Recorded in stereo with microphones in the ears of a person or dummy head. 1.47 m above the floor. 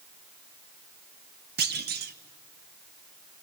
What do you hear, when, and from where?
1.6 s a clunk: 50° right (ahead or behind), 0.6 m